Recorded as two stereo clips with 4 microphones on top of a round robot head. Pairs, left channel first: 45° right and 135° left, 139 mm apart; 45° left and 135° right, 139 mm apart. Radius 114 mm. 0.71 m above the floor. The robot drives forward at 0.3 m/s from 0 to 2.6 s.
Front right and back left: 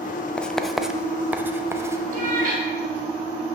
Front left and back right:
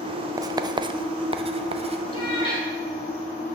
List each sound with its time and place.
0.4 s writing: 115° right, 0.6 m; by 2.0 s 160° right, 0.9 m
2.1 s a cat meowing: 105° left, 2.5 m; by 2.6 s 110° left, 2.5 m